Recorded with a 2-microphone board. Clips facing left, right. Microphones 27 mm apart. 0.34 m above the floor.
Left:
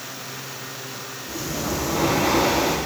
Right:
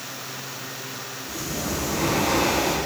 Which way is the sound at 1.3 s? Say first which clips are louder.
Left 2 dB; 10° left (ahead or behind).